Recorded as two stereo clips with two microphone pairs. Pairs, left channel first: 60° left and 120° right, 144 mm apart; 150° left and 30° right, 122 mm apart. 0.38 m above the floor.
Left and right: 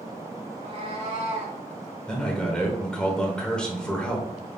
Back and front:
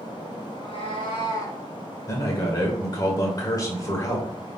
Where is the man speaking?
135° left, 1.0 m.